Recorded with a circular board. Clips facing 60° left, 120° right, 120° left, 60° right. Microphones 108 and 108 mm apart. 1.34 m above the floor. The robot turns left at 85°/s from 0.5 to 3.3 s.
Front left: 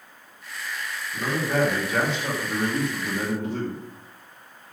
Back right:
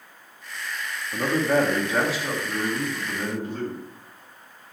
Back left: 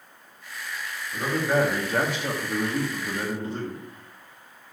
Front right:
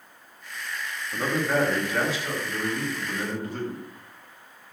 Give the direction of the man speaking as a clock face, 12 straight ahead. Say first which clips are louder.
Back right 4 dB, back left 1 dB; 4 o'clock.